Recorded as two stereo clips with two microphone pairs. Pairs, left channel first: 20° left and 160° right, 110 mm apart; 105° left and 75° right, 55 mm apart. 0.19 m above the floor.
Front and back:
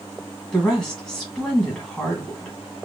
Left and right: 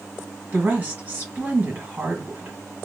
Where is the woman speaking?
60° right, 1.5 m.